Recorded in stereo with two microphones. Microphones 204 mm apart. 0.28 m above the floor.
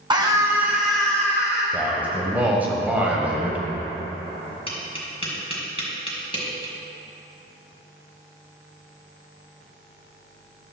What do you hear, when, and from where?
0.1 s a scream: 20° right (ahead or behind), 2 m; by 1.6 s 15° left (ahead or behind), 2.5 m
1.7 s a man speaking: 5° right (ahead or behind), 1.4 m
4.7 s tapping: 25° left (ahead or behind), 2.5 m